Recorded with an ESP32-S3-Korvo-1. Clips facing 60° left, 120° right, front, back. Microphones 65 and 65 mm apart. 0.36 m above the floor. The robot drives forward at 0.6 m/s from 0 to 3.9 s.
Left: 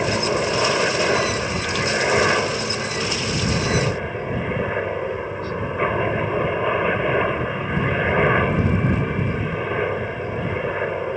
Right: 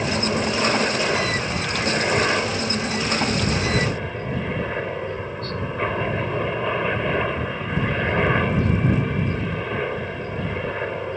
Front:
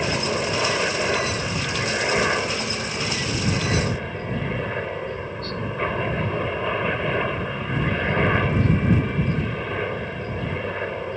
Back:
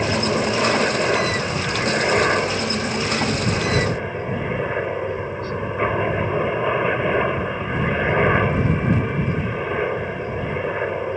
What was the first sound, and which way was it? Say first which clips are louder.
A helicopter: left 2 dB, back 4 dB; 110° left.